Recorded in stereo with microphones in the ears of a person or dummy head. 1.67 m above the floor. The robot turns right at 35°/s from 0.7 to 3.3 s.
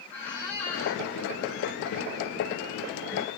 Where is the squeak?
15° left (ahead or behind), 1.4 m; by 1.0 s 5° left (ahead or behind), 1.4 m.